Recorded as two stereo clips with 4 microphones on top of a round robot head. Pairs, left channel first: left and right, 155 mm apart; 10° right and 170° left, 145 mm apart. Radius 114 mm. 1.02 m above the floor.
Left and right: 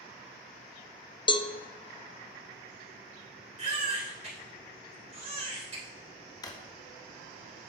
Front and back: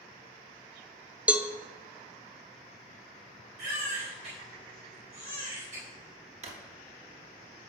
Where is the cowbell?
95° left, 0.5 m.